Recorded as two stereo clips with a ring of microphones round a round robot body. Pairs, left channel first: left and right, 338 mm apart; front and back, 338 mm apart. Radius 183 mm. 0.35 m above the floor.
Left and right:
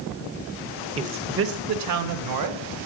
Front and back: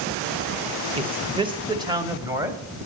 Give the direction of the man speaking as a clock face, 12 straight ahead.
4 o'clock.